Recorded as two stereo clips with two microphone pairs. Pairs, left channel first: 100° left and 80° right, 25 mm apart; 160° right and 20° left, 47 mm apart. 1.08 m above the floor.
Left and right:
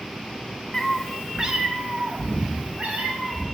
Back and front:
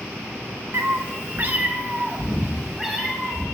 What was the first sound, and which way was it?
A cat meowing, 30° left.